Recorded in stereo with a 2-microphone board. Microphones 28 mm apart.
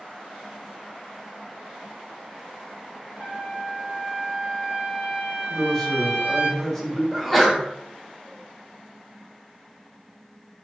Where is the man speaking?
15° left (ahead or behind), 0.7 m.